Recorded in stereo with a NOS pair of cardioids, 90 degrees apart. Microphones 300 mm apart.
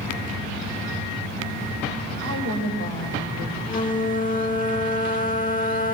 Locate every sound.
2.2 s a woman speaking: 50° right, 7 m; by 3.6 s 35° right, 6 m
3.7 s a flute: 25° left, 2.0 m